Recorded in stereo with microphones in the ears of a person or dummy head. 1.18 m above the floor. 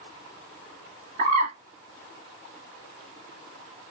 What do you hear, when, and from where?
1.2 s a bird: 45° right (ahead or behind), 2 m